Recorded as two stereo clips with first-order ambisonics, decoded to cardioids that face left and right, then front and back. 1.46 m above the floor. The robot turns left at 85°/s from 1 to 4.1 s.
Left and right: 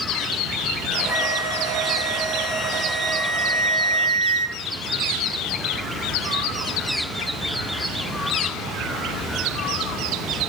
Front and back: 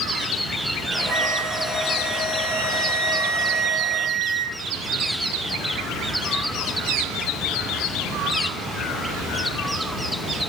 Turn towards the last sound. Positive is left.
turn(degrees=-85)